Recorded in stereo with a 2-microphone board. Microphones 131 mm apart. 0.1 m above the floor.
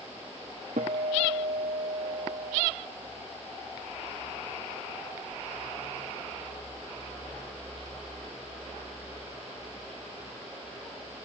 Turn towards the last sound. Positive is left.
turn(degrees=-80)